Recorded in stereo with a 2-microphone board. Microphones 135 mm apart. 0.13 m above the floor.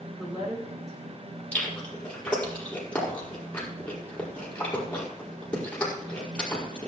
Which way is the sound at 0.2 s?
25° right (ahead or behind).